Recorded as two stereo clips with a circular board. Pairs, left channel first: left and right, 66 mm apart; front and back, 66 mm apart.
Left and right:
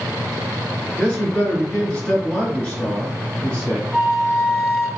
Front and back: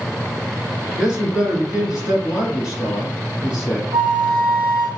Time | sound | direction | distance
1.0 | a man speaking | 130° left | 1.4 m
3.9 | a flute | 30° left | 1.4 m